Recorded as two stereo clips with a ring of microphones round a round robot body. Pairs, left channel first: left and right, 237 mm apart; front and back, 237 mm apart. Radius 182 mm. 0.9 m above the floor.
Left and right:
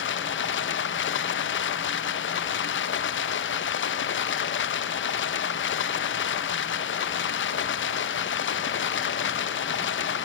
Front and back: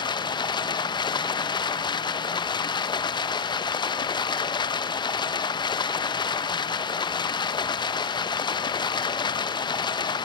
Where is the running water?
70° left, 0.9 m.